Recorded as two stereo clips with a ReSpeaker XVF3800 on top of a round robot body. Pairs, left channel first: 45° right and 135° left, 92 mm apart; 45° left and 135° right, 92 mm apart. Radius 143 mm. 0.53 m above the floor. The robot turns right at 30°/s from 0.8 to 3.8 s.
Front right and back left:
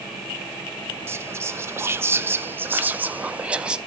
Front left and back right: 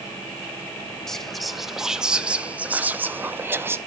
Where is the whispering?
125° left, 0.6 m; by 3.8 s 155° right, 0.6 m.